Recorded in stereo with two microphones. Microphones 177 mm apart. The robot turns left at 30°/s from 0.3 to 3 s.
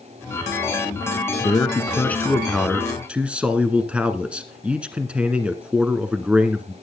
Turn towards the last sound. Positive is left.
turn(degrees=-10)